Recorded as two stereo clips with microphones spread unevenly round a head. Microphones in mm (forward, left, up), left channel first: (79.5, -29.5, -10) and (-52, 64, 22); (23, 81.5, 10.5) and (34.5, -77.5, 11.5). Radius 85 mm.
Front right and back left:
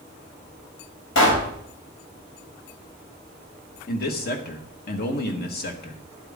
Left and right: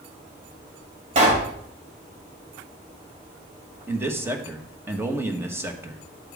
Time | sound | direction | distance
1.1 | a pop | 40° right | 3.5 m
3.9 | a man speaking | 10° right | 1.6 m